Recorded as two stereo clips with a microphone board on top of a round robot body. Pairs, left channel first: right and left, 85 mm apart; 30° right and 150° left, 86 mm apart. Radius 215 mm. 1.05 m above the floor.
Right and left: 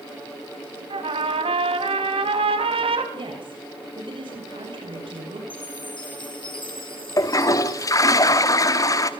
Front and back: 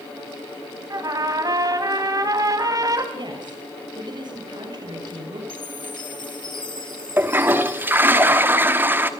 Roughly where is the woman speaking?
Behind left.